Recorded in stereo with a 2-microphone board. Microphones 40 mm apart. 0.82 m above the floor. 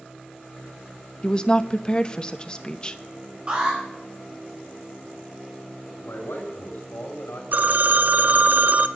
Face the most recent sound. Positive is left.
turn(degrees=-55)  # may be behind; listen again after turning